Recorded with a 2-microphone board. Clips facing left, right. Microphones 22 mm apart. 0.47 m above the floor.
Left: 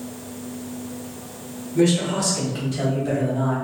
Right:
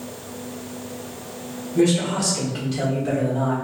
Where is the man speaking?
5° left (ahead or behind), 1.2 m; by 3.5 s 50° right (ahead or behind), 1.6 m.